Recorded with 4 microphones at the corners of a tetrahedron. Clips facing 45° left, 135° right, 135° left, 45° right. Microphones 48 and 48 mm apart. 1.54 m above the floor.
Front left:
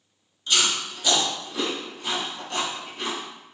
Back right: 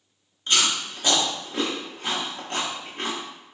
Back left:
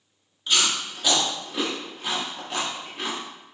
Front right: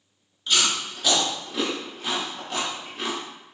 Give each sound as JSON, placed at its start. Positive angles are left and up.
{"t": 0.5, "sound": "chewing", "azimuth_deg": -145, "distance_m": 1.1}